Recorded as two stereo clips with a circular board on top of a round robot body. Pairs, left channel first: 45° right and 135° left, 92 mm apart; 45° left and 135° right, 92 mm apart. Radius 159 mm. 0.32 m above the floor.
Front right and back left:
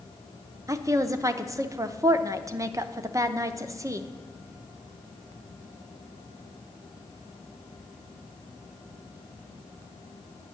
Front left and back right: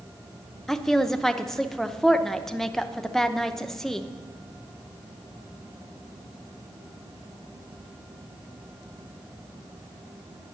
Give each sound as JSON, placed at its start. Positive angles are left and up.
{"t": 0.7, "sound": "a woman speaking", "azimuth_deg": 130, "distance_m": 0.9}